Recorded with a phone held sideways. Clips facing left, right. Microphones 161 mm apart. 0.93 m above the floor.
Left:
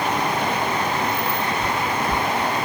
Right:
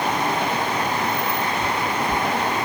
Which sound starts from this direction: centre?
Footsteps, at 1.6 s.